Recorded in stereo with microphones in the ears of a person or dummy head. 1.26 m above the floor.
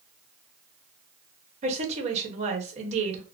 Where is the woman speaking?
40° right (ahead or behind), 1.1 m.